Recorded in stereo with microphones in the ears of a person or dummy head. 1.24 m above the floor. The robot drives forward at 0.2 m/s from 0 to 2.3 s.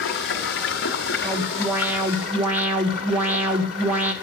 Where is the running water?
65° left (ahead or behind), 1.2 m; by 4.2 s 55° left (ahead or behind), 1.4 m.